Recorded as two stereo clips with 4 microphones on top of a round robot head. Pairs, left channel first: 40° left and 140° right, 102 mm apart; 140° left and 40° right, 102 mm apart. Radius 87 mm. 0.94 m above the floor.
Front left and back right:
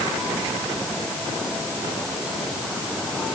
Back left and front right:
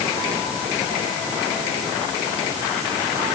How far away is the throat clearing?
I don't hear throat clearing.